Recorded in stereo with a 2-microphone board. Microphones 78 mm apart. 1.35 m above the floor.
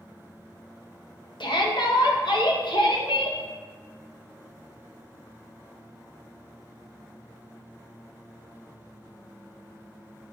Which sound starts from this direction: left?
A shout, at 1.4 s.